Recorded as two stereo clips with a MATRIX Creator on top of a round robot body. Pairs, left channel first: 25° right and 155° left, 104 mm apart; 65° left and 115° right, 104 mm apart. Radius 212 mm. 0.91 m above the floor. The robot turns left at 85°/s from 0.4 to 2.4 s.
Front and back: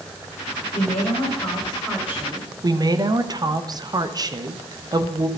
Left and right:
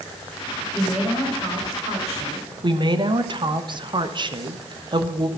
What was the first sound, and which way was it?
A woman speaking, 20° right.